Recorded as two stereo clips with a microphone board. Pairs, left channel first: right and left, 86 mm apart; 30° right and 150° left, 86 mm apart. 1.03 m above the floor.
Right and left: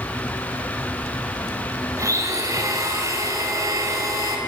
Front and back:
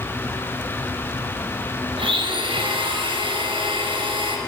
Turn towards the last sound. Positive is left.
turn(degrees=140)